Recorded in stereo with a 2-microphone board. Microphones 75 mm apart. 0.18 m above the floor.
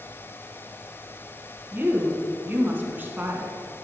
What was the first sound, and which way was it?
A woman speaking, 25° right (ahead or behind).